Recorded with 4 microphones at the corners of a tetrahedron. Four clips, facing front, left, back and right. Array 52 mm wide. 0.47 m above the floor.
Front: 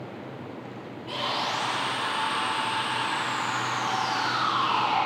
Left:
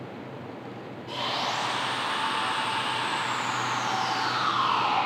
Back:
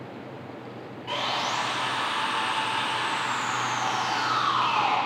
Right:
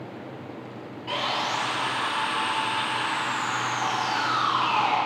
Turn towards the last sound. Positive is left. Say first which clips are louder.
# right 3 dB, back 1 dB
turn(degrees=-120)